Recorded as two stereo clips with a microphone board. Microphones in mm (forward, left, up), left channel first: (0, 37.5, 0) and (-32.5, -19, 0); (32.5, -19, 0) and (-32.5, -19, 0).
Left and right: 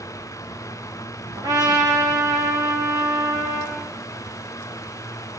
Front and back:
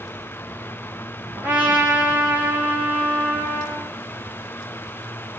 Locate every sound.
1.4 s a trumpet: 115° right, 5 m